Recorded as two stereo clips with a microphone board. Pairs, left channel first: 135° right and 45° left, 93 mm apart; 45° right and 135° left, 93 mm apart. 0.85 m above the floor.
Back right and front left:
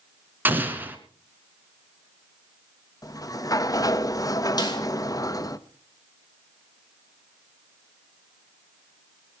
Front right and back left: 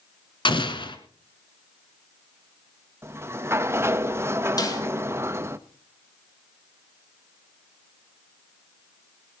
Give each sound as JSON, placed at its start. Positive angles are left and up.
{"t": 0.5, "sound": "an explosion", "azimuth_deg": -25, "distance_m": 1.7}
{"t": 3.0, "sound": "a sliding door", "azimuth_deg": -170, "distance_m": 0.7}
{"t": 4.6, "sound": "a snare drum", "azimuth_deg": -90, "distance_m": 3.0}